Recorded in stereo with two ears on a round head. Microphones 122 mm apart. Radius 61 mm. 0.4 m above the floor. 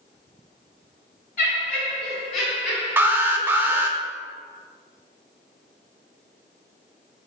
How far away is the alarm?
About 0.6 m.